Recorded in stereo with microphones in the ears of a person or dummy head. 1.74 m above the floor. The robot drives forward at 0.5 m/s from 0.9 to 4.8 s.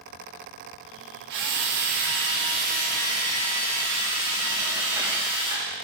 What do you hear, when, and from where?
1.3 s a drill: 60° right (ahead or behind), 0.9 m; by 5.7 s 25° right (ahead or behind), 1.8 m